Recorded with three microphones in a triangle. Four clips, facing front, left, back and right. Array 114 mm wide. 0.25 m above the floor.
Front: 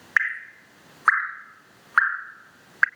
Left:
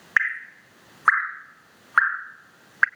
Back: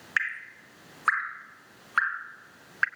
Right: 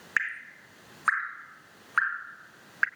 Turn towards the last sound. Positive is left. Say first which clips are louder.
# left 7 dB, front 6 dB
turn(degrees=60)